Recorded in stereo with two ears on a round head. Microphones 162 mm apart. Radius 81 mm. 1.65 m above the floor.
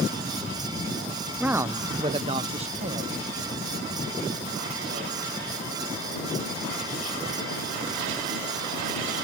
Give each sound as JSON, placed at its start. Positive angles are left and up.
{"t": 1.4, "sound": "a man speaking", "side_deg": -5}